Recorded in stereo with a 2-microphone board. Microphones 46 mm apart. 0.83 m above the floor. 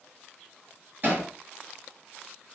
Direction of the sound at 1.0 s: 35° right (ahead or behind).